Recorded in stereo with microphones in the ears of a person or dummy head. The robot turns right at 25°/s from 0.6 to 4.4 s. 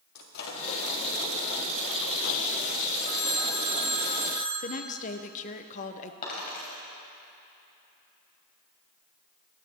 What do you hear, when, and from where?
0.1 s a microwave: 50° left (ahead or behind), 1.5 m; by 2.5 s 75° left (ahead or behind), 1.5 m
3.0 s a phone ringing: 110° left, 1.4 m; by 4.5 s 145° left, 1.4 m
4.6 s a woman speaking: 35° left (ahead or behind), 0.7 m
6.2 s a dropped coin: 45° left (ahead or behind), 3 m